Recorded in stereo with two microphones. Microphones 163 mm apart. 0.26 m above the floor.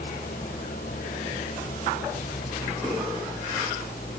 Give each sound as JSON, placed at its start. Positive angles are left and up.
{"t": 0.0, "sound": "an engine running", "side_deg": 60}